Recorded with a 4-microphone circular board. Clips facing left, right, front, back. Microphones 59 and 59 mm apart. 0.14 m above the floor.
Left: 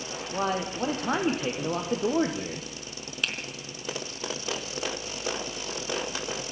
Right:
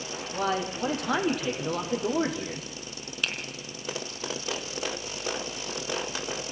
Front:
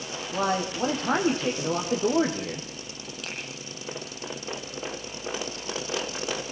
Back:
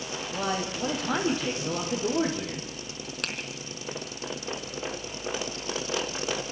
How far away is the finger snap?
About 4 m.